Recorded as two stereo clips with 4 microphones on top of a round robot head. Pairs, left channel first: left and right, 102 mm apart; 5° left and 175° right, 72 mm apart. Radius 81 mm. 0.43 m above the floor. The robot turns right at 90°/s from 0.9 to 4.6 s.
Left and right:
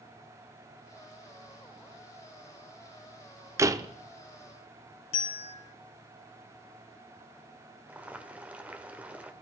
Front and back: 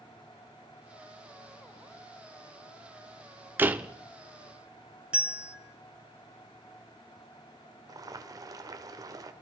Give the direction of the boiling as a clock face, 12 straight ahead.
5 o'clock.